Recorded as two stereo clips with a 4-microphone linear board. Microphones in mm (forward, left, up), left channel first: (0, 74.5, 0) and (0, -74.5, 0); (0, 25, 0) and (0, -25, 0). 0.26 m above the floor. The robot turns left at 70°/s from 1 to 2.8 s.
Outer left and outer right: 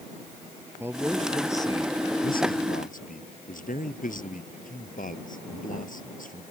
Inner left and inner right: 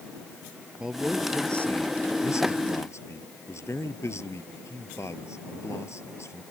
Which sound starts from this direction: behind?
A man speaking, at 0.8 s.